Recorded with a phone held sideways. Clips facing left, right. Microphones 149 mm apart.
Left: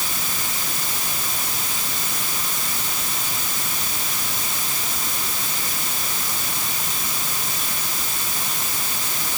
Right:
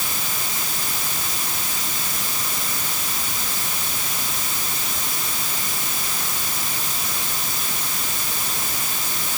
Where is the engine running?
I don't hear an engine running.